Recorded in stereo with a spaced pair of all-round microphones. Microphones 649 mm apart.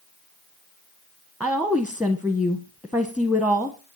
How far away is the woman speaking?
About 1.0 m.